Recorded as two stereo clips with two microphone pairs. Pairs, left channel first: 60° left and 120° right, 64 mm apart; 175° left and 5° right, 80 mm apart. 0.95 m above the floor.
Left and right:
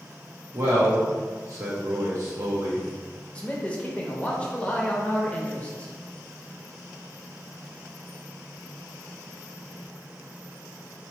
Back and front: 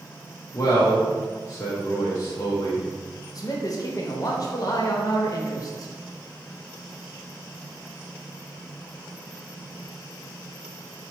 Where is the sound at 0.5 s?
145° right, 0.9 m.